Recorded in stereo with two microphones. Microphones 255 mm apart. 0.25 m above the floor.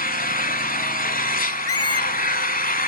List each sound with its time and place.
0.0 s an engine running: 35° left (ahead or behind), 0.9 m
1.7 s a squeak: 65° left (ahead or behind), 0.5 m